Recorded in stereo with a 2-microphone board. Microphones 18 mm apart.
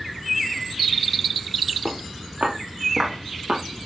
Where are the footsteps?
60° right (ahead or behind), 4.5 m; by 3.6 s 80° right, 4 m.